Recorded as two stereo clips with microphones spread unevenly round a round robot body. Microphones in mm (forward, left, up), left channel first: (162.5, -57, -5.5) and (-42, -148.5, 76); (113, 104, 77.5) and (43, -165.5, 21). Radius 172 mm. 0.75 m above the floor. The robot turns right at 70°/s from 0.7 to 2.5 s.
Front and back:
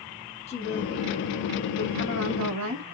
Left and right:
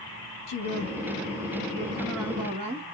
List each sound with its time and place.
0.5 s a woman speaking: 70° left, 0.8 m; by 2.9 s 165° right, 0.8 m